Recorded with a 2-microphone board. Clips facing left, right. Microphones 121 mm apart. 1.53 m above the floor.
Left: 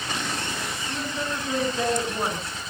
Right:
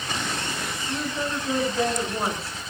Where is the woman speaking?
5° right (ahead or behind), 10 m.